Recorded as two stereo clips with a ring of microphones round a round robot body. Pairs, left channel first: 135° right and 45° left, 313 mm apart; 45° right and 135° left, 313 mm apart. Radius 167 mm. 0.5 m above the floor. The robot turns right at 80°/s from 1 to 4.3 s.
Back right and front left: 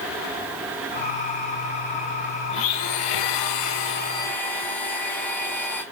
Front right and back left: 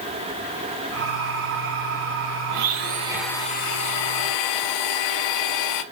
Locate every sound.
2.5 s a blender: 165° left, 0.6 m; by 5.8 s 50° right, 0.6 m